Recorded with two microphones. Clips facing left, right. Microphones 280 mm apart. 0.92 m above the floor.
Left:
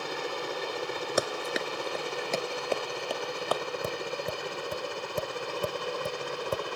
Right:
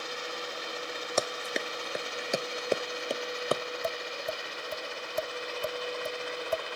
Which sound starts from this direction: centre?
Running footsteps, at 1.2 s.